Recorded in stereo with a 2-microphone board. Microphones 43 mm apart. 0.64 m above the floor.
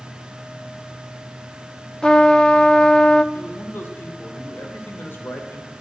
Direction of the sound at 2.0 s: 15° left (ahead or behind).